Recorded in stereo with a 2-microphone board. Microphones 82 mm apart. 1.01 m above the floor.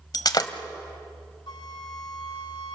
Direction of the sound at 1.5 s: 65° left (ahead or behind).